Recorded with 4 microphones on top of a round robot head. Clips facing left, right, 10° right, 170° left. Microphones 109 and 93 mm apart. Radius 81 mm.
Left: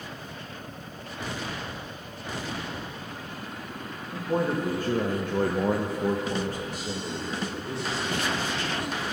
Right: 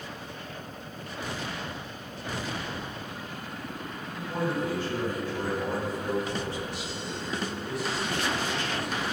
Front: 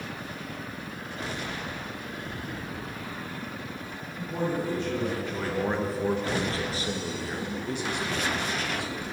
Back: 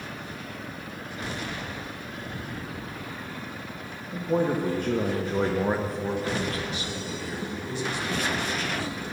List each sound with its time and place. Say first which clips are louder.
4.1 s a man speaking: left 4 dB, back 5 dB; 150° left, 1.8 m; by 9.0 s 15° left, 3.5 m